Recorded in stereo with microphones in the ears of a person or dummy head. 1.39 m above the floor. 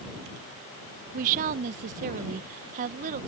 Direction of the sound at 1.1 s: 45° right (ahead or behind).